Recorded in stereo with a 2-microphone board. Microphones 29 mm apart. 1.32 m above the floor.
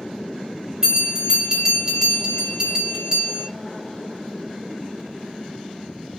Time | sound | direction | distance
0.8 | a bell | 15° right (ahead or behind) | 1.1 m